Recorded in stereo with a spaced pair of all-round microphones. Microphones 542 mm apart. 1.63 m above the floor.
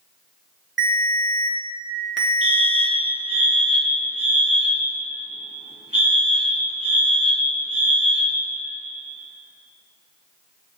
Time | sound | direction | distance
0.8 | a ringtone | 20° right (ahead or behind) | 1.3 m
2.4 | a fire alarm | 10° right (ahead or behind) | 1.2 m